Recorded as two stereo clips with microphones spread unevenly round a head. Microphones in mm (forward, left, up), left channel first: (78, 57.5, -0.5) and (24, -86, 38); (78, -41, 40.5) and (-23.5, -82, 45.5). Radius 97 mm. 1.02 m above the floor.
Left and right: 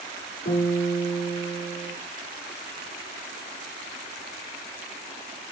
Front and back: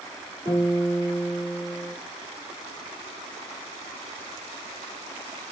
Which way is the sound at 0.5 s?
115° left.